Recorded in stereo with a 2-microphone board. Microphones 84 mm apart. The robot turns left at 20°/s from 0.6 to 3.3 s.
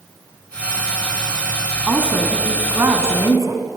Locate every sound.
1.9 s a woman speaking: 15° right (ahead or behind), 2.5 m; by 3.6 s 45° right (ahead or behind), 2.5 m